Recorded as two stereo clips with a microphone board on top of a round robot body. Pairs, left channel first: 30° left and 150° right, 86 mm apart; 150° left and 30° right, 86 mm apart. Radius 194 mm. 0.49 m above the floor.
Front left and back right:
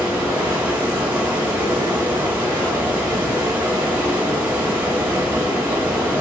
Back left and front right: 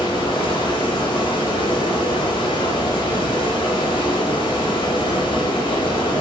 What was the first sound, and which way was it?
Running water, 140° left.